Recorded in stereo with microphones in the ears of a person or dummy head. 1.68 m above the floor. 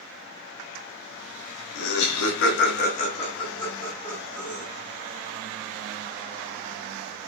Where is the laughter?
75° left (ahead or behind), 0.8 m; by 4.7 s 5° right (ahead or behind), 1.3 m.